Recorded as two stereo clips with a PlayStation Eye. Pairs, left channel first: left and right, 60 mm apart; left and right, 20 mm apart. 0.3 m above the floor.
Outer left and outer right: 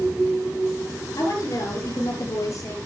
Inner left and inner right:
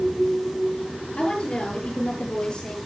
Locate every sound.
1.2 s a woman speaking: 70° left (ahead or behind), 7 m; by 2.8 s 60° left (ahead or behind), 6.5 m